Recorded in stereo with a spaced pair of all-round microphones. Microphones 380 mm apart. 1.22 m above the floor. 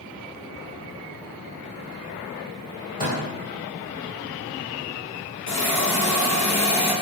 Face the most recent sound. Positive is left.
turn(degrees=50)  # may be behind; listen again after turning